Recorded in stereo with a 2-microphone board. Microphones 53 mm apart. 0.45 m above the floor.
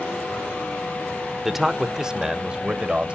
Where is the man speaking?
10° right (ahead or behind), 1.0 m; by 3.1 s 25° right (ahead or behind), 1.7 m.